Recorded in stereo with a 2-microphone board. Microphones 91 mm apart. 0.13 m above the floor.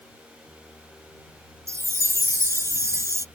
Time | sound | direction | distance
1.7 | a chime | 35° right (ahead or behind) | ?